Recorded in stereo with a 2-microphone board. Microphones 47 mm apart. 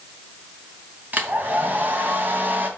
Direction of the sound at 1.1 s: 40° right (ahead or behind).